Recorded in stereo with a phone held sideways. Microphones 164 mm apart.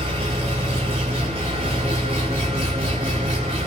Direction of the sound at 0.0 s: 35° right (ahead or behind).